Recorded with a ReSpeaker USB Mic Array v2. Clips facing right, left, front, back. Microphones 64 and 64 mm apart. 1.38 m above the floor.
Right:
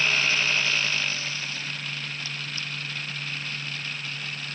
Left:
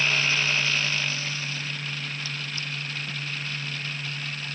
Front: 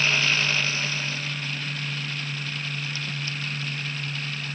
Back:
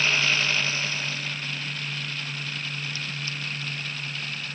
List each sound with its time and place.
Only background noise.